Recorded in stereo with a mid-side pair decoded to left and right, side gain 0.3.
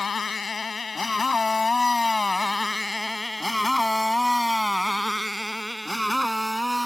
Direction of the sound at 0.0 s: 60° left.